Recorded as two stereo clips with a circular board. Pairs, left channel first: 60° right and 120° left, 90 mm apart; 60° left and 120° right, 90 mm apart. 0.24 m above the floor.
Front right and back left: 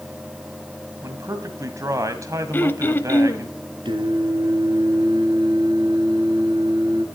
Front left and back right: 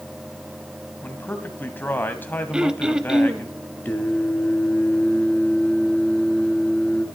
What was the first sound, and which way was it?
A man speaking, 110° left.